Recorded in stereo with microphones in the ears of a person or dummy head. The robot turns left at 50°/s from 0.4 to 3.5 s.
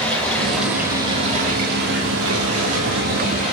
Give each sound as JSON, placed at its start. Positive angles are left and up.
{"t": 0.0, "sound": "running water", "azimuth_deg": 10, "distance_m": 5.5}